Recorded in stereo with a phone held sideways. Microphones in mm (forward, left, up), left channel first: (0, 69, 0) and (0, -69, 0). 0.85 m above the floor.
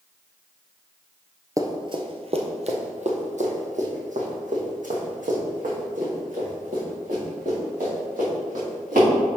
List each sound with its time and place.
1.6 s running footsteps: 25° right (ahead or behind), 0.9 m; by 9.1 s 70° right (ahead or behind), 5.5 m